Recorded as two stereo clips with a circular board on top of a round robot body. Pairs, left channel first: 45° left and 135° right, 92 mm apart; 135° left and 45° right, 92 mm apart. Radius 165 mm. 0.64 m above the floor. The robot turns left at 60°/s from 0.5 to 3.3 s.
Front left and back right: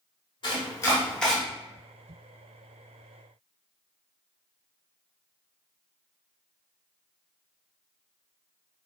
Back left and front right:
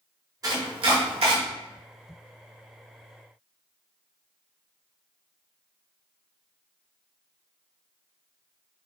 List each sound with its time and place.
0.4 s chopping: 5° left, 1.2 m; by 1.4 s 45° right, 1.2 m